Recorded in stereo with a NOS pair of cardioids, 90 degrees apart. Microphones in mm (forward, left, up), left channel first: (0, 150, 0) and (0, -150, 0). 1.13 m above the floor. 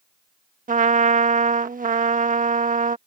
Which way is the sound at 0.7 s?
25° right.